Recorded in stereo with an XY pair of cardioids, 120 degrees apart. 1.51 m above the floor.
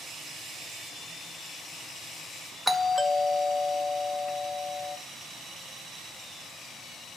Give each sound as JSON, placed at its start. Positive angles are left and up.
{"t": 2.7, "sound": "a doorbell", "azimuth_deg": 0, "distance_m": 0.7}